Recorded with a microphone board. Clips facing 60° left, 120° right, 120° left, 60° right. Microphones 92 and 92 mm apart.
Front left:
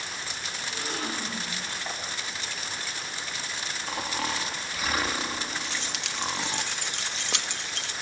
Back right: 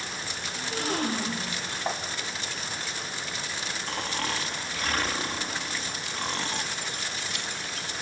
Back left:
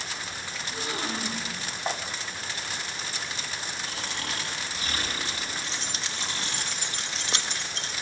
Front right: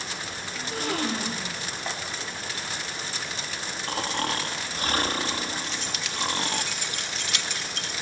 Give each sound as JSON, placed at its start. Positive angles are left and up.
{"t": 0.6, "sound": "a gasp", "azimuth_deg": -80, "distance_m": 8.0}
{"t": 1.9, "sound": "tapping", "azimuth_deg": -170, "distance_m": 4.0}
{"t": 3.9, "sound": "snoring", "azimuth_deg": -25, "distance_m": 1.9}
{"t": 5.6, "sound": "keys jangling", "azimuth_deg": 60, "distance_m": 1.2}